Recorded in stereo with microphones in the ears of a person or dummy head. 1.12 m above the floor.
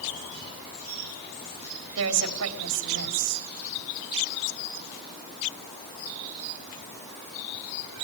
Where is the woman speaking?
70° right (ahead or behind), 3.5 m.